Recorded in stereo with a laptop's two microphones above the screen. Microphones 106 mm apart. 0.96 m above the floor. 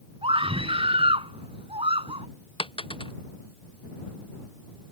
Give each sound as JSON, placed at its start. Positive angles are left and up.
{"t": 0.2, "sound": "a scream", "side_deg": -55}
{"t": 2.6, "sound": "a dropped coin", "side_deg": 55}